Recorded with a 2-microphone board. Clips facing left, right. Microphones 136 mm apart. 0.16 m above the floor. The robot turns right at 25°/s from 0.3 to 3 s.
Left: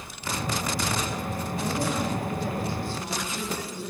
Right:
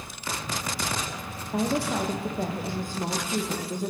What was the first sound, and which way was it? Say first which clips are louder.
A woman speaking: right 4 dB; 80° right.